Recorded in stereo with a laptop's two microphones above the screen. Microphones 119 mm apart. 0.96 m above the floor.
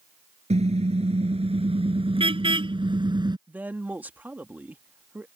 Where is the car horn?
60° right (ahead or behind); by 3.4 s 35° right (ahead or behind).